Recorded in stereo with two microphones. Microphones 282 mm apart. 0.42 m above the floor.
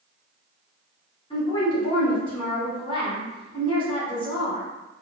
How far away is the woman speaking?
About 1.3 m.